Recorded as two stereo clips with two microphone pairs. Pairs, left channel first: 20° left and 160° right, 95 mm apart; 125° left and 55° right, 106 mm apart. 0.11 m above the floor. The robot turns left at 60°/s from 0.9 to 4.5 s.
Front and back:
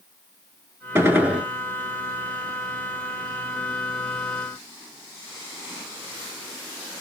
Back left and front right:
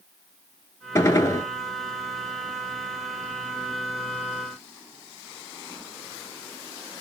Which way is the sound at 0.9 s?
155° left.